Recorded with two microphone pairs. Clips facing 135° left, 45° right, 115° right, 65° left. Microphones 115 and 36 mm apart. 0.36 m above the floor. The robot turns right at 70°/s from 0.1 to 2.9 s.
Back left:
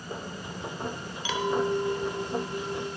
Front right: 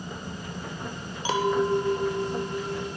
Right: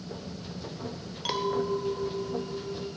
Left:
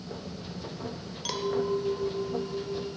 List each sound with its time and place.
1.2 s a clink: 60° right, 0.7 m; by 2.9 s 55° left, 0.7 m